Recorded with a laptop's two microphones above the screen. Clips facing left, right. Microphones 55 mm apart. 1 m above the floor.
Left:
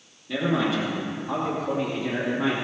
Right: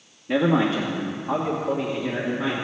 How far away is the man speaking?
About 1.3 m.